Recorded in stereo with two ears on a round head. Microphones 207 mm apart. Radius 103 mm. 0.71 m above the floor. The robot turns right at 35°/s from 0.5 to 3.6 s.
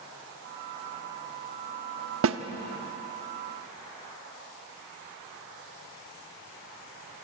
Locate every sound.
2.2 s a snare drum: 60° right (ahead or behind), 1.1 m